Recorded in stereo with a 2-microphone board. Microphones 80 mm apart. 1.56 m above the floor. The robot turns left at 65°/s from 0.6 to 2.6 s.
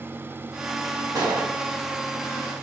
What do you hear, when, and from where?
1.1 s a gunshot: 45° right (ahead or behind), 1.0 m; by 1.5 s 70° right (ahead or behind), 1.0 m